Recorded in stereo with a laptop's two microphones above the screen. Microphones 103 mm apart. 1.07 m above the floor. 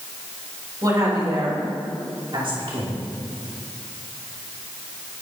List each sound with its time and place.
0.8 s a woman speaking: 35° right (ahead or behind), 4.5 m; by 3.0 s 65° right (ahead or behind), 3 m